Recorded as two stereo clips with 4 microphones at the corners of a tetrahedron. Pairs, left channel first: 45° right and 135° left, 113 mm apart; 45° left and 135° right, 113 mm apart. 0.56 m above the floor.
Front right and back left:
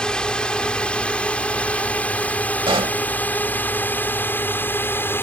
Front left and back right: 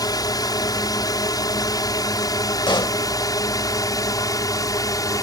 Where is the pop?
95° left.